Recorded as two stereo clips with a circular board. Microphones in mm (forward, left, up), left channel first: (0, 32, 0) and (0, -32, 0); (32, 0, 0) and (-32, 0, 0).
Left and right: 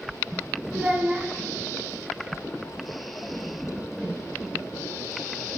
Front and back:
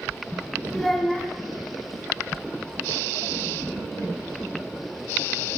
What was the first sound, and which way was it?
A child speaking, 75° right.